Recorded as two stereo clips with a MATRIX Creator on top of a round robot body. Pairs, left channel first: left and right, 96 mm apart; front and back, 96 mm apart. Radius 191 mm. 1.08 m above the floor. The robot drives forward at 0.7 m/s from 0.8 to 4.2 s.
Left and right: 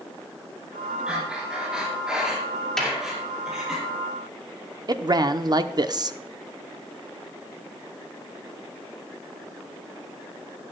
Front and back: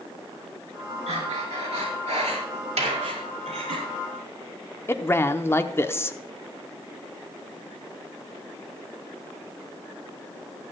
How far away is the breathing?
About 2.5 m.